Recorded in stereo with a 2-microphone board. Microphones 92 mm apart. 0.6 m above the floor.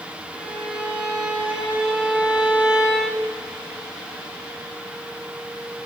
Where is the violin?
10° right (ahead or behind), 4.5 m.